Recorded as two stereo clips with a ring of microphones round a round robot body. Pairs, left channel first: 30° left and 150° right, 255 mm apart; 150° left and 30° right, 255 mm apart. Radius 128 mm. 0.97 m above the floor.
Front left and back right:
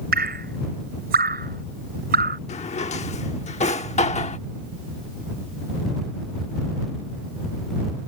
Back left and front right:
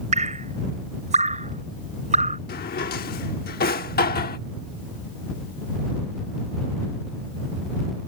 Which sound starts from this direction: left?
A drawer, at 2.5 s.